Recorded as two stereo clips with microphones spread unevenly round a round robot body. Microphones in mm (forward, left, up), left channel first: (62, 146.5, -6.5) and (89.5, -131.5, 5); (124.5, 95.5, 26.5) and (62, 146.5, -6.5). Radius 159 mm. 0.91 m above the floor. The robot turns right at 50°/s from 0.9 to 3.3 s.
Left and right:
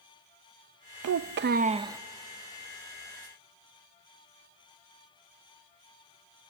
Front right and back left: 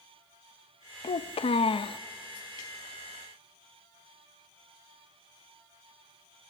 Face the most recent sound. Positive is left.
turn(degrees=65)